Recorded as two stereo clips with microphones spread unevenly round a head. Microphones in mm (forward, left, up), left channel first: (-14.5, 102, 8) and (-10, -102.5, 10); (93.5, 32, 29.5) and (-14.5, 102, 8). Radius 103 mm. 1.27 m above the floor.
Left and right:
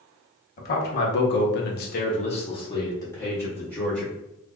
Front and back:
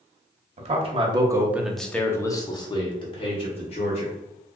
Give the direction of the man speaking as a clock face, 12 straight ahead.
8 o'clock.